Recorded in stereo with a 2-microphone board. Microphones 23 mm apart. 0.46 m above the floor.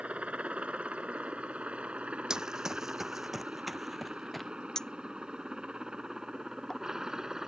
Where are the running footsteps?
30° right (ahead or behind); by 4.5 s 5° left (ahead or behind).